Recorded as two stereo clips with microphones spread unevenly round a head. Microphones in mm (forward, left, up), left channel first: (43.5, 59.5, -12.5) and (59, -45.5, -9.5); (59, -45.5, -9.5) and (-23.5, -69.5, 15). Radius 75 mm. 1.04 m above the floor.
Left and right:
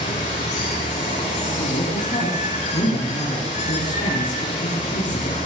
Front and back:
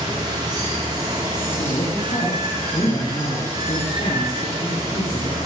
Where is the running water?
135° left, 7.5 m.